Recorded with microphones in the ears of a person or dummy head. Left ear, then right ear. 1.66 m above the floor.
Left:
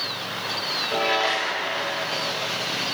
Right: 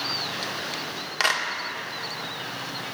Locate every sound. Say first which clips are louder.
1.2 s a clap: even; 75° right (ahead or behind), 2 m